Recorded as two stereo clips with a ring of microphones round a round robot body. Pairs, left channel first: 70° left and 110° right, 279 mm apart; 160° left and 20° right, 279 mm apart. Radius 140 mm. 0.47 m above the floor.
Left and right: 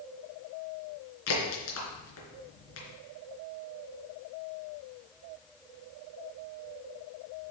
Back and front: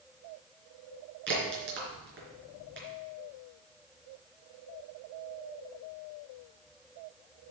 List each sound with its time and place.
1.3 s a crack: 30° left, 4 m